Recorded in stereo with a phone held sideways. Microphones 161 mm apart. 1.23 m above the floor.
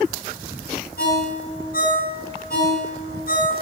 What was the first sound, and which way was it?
A ringtone, 75° left (ahead or behind).